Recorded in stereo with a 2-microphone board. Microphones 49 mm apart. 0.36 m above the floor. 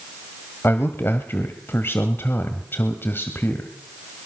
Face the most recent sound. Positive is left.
turn(degrees=50)  # may be behind; listen again after turning